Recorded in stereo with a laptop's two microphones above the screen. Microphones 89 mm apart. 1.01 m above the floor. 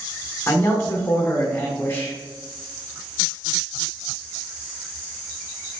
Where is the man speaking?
25° left (ahead or behind), 1.6 m.